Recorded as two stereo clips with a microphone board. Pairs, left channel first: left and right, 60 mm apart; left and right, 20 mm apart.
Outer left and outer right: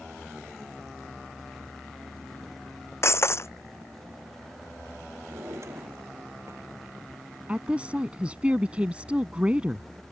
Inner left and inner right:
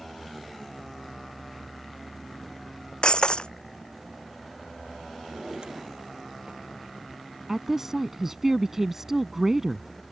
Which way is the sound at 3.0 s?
50° left (ahead or behind).